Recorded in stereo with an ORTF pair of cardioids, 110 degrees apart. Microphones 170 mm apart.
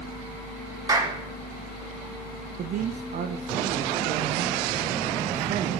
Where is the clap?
25° right, 6.5 m.